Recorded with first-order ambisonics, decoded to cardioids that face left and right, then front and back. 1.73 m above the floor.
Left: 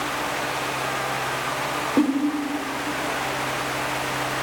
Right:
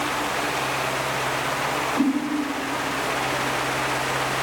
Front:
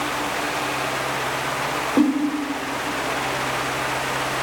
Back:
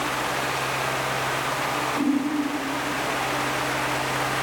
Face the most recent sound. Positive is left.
turn(degrees=40)